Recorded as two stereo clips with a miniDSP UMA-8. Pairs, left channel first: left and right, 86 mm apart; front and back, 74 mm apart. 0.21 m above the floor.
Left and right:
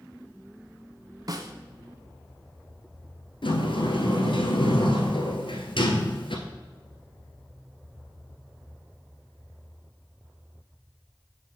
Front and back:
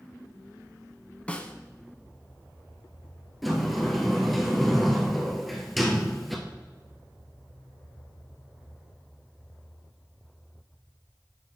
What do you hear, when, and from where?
1.3 s a snare drum: 70° right, 0.7 m
3.4 s a sliding door: 90° left, 1.1 m